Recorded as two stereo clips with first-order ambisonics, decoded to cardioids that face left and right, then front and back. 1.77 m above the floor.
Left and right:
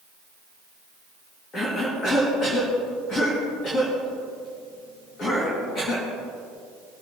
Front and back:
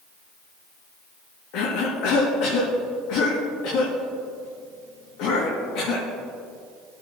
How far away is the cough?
About 2.5 m.